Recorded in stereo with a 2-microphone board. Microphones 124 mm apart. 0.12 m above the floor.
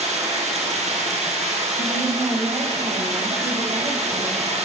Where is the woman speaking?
35° right (ahead or behind), 2.5 m.